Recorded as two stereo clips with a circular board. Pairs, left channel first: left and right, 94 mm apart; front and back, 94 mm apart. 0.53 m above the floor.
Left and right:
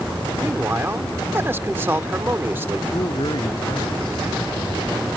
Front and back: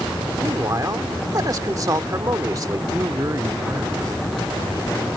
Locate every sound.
0.4 s a man speaking: 145° right
2.9 s a man speaking: 125° left